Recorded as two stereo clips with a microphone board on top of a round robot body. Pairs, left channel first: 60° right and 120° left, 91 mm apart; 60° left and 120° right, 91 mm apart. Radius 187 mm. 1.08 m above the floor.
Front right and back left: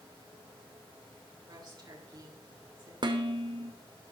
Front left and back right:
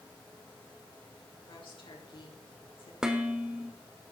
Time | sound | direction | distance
1.5 | a woman speaking | 80° left | 4.5 m
3.0 | dishes clattering | 160° left | 1.2 m